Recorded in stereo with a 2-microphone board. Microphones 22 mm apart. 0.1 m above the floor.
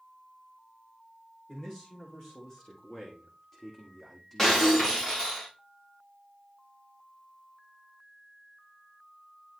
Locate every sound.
1.5 s a man speaking: 30° left (ahead or behind), 7.5 m; by 5.1 s 5° right (ahead or behind), 4.5 m
4.4 s breaking glass: 15° left (ahead or behind), 5.5 m